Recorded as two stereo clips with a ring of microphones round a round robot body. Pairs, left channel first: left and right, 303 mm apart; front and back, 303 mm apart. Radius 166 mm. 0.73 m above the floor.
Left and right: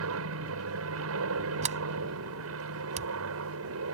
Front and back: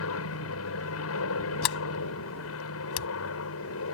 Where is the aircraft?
45° right.